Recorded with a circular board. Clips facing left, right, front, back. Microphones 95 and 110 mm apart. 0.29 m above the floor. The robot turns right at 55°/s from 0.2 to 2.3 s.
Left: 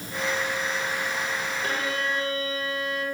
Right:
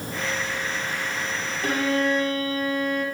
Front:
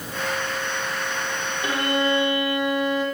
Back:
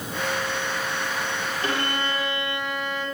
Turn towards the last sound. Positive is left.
turn(degrees=-50)